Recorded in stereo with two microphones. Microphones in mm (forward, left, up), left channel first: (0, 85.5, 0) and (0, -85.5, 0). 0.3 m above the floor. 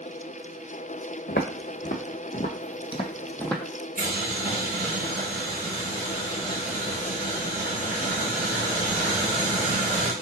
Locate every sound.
1.3 s footsteps: 75° left (ahead or behind), 1.2 m; by 3.6 s centre (ahead or behind), 0.7 m
4.0 s boiling: 60° right (ahead or behind), 3 m